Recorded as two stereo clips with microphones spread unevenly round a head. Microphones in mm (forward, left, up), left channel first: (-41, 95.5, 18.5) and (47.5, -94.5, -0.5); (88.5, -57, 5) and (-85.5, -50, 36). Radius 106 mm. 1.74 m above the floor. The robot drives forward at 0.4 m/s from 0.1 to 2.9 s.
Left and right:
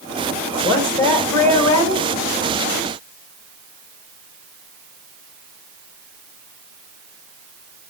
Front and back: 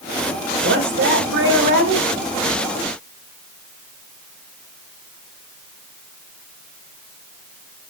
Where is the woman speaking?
170° right, 3 m; by 2.1 s 175° right, 3.5 m.